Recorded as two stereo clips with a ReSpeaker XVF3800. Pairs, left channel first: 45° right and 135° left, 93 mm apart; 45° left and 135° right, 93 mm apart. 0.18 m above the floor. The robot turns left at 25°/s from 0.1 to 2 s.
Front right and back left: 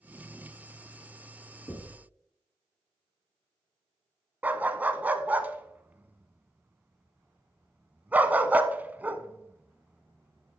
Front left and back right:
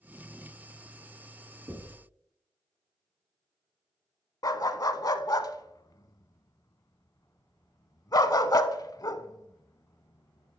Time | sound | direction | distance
1.7 | knocking | 95° right | 1.3 m
4.4 | a dog barking | 70° left | 0.6 m